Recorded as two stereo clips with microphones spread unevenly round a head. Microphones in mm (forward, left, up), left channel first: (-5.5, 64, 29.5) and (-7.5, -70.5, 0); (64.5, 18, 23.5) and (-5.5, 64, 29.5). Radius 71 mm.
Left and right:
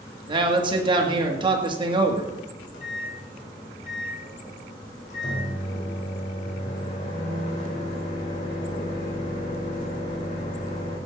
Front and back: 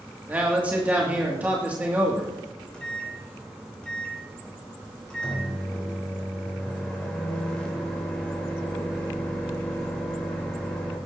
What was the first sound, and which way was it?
A man speaking, 140° right.